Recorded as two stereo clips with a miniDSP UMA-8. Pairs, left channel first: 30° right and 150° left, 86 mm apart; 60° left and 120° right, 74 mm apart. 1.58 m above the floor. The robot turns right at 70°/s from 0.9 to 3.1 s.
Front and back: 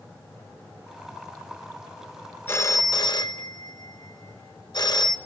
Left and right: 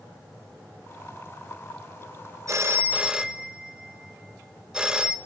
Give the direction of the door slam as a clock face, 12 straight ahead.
I don't hear a door slam.